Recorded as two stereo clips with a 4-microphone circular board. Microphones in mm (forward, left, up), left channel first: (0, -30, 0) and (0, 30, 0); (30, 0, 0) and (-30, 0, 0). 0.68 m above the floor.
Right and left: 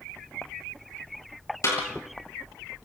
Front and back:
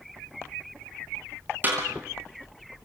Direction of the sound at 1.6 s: 125° right.